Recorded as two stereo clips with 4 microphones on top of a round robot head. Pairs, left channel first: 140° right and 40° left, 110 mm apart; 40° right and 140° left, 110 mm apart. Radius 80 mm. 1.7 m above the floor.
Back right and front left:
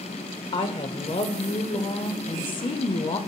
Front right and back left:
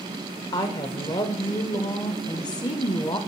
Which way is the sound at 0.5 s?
95° right.